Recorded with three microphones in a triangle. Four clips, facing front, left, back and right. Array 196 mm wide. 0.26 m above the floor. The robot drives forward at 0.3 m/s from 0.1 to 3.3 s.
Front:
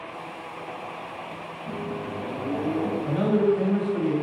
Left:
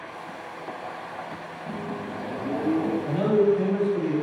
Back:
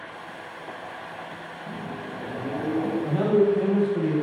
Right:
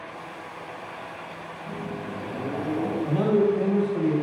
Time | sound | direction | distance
1.7 | a microwave | 40° left | 0.8 m
3.0 | a man speaking | 115° right | 0.9 m